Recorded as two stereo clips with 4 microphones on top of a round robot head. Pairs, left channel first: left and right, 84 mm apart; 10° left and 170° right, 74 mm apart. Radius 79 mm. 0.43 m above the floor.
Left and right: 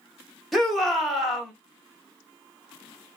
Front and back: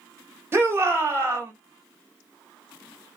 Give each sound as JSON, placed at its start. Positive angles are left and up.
{"t": 0.5, "sound": "a shout", "azimuth_deg": 180, "distance_m": 1.5}